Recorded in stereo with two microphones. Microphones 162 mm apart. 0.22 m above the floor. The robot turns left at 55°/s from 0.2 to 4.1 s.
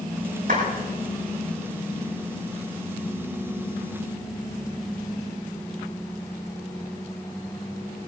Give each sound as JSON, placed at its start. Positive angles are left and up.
{"t": 0.5, "sound": "a clap", "side_deg": -60, "distance_m": 9.5}